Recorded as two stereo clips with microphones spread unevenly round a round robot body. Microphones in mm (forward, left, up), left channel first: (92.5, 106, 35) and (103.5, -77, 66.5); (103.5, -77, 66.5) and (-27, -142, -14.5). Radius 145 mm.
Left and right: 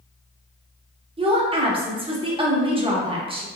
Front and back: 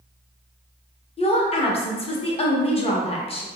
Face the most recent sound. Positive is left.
turn(degrees=-50)